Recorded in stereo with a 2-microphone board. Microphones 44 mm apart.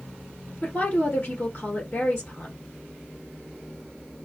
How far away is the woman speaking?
About 1.4 m.